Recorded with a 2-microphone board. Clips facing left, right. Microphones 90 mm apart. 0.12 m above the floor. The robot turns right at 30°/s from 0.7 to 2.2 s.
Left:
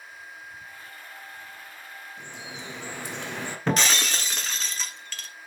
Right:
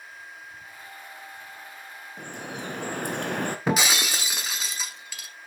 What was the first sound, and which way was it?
Dripping, 60° right (ahead or behind).